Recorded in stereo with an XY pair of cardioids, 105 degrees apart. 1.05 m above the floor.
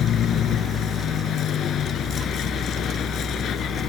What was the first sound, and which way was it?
A vehicle, 65° left.